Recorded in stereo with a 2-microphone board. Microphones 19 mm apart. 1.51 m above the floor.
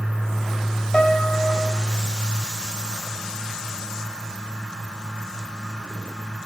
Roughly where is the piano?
Left.